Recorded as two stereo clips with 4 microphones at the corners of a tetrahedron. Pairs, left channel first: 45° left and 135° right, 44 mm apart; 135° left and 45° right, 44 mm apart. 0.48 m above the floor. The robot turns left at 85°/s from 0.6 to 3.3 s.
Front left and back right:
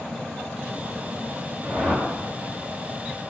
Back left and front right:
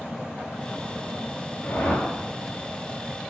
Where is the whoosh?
140° right, 5 m; by 2.1 s straight behind, 5 m.